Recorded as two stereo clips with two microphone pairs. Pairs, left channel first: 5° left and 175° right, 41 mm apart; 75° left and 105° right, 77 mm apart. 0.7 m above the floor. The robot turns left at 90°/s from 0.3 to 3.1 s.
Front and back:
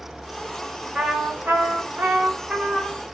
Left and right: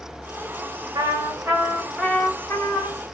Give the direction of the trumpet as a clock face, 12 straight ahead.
3 o'clock.